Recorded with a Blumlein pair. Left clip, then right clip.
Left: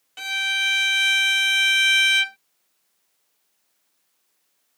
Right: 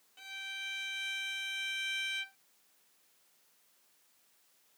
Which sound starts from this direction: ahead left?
A violin, at 0.2 s.